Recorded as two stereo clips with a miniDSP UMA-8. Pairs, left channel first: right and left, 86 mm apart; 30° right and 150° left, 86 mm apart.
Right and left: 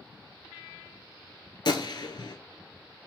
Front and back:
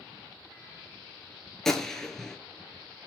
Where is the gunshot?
115° right, 0.6 m.